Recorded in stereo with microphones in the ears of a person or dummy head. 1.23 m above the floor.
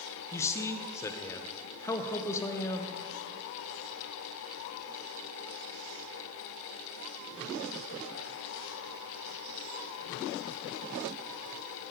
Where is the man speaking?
10° left (ahead or behind), 0.5 m.